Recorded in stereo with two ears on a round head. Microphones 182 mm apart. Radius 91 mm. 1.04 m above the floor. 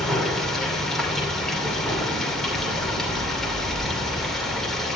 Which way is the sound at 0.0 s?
Centre (ahead or behind).